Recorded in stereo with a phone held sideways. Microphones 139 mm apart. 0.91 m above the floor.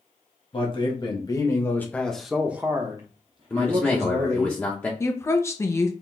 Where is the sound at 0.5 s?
40° left (ahead or behind), 1.3 m; by 4.5 s 60° right (ahead or behind), 1.3 m.